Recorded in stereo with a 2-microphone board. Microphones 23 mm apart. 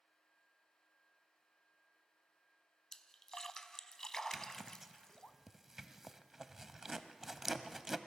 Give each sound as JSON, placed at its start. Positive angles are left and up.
{"t": 2.9, "sound": "a splash", "side_deg": 25, "distance_m": 0.7}
{"t": 4.3, "sound": "a zipper", "side_deg": -15, "distance_m": 0.6}